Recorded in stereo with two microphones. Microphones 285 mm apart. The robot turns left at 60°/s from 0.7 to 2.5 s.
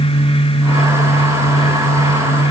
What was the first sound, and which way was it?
Only background noise.